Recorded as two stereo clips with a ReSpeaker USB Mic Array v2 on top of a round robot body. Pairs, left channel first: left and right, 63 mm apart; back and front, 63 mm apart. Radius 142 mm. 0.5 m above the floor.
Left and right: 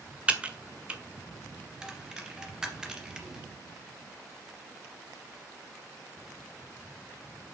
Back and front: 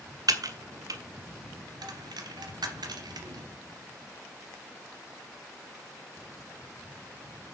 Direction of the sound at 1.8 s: 10° right.